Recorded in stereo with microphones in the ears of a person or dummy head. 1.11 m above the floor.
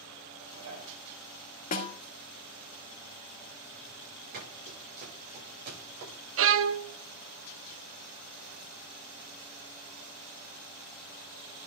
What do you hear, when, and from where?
0.4 s dishes clattering: 85° right, 6.5 m
1.7 s a snare drum: 40° left (ahead or behind), 1.4 m
4.3 s running footsteps: 50° right (ahead or behind), 8 m; by 6.1 s 55° right (ahead or behind), 9 m
6.4 s a violin: 65° right (ahead or behind), 0.7 m